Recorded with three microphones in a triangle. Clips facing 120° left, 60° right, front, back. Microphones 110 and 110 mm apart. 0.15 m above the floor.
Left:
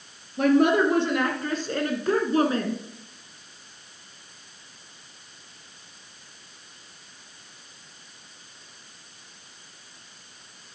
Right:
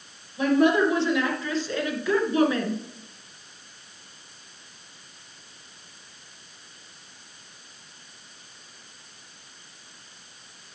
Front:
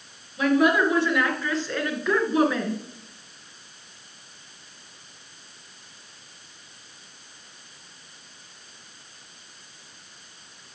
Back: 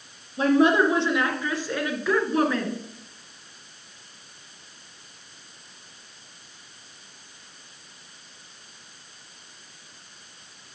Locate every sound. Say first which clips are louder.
0.4 s a woman speaking: left 1 dB, back 1 dB; 125° left, 2 m; by 2.8 s 75° left, 1.7 m